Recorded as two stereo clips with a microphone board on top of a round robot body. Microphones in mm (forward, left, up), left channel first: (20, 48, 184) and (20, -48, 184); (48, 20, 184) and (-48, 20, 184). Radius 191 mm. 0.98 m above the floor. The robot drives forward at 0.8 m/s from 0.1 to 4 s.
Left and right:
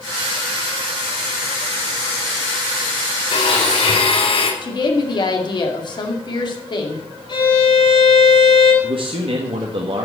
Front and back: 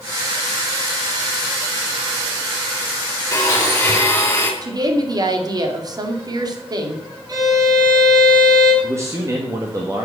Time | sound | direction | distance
3.3 | a blender | 65° left | 4 m
4.6 | a woman speaking | 130° left | 2.5 m
7.3 | a violin | 130° left | 6 m
8.8 | a man speaking | 120° right | 1.7 m